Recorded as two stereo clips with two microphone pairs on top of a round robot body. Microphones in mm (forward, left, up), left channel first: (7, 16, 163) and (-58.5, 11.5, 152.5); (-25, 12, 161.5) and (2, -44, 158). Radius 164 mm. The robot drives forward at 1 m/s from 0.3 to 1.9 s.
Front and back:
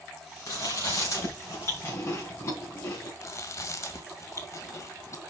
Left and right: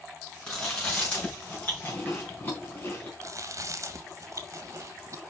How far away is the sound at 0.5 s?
About 5 m.